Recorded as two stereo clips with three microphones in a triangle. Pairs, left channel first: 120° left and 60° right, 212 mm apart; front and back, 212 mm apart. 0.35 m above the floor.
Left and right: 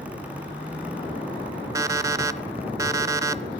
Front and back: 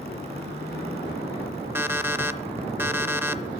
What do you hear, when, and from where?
1.8 s an alarm clock: 115° right, 0.5 m